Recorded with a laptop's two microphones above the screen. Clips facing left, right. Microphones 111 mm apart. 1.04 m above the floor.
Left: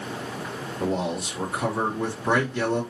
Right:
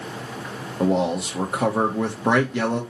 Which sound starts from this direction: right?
A man speaking, at 0.8 s.